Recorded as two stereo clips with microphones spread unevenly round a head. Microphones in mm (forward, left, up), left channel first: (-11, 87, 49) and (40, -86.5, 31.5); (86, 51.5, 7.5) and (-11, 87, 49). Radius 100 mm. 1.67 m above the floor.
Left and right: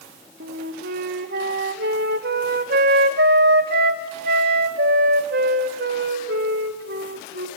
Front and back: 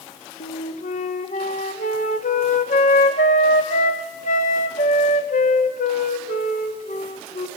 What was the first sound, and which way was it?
A flute, 45° right.